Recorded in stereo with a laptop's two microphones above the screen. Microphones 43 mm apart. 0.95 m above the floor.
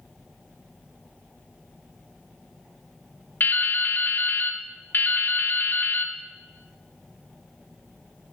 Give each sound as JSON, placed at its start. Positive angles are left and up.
{"t": 3.4, "sound": "dripping", "side_deg": 45, "distance_m": 0.9}